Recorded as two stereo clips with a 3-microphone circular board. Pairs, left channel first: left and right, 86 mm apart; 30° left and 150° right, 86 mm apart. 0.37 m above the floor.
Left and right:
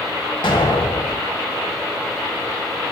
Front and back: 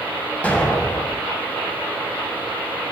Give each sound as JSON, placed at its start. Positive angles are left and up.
{"t": 0.4, "sound": "an explosion", "azimuth_deg": 105, "distance_m": 0.7}